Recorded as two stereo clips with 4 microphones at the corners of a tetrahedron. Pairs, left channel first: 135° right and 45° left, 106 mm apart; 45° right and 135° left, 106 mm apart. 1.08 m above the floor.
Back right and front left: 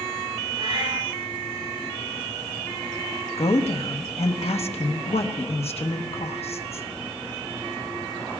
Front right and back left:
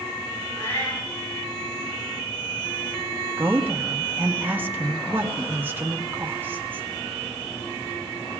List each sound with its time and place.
0.6 s a cat meowing: 15° left, 8 m
3.4 s a woman speaking: 155° right, 1.1 m